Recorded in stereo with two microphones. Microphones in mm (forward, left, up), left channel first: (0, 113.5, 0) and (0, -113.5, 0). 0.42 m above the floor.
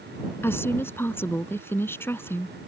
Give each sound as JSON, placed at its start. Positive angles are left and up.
{"t": 0.4, "sound": "a woman speaking", "side_deg": 10}